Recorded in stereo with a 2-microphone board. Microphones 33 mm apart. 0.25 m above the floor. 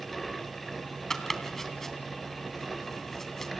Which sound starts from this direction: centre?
Chopping, at 1.1 s.